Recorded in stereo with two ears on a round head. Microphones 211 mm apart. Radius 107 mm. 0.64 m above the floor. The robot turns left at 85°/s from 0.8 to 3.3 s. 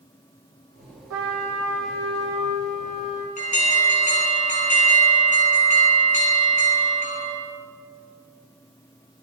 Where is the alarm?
35° left (ahead or behind), 7 m.